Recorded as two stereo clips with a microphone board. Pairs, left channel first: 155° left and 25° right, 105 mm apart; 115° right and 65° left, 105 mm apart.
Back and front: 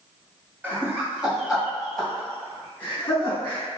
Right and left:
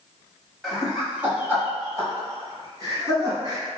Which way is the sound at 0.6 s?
10° right.